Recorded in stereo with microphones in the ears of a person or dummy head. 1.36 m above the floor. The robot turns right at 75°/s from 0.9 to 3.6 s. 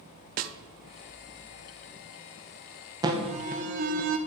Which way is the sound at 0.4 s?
50° right (ahead or behind).